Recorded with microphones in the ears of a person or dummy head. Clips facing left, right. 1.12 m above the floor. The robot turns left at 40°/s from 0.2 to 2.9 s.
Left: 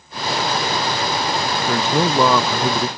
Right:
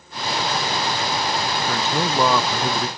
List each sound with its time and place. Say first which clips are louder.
1.7 s a man speaking: left 6 dB; 150° left, 0.6 m; by 2.9 s 100° left, 0.6 m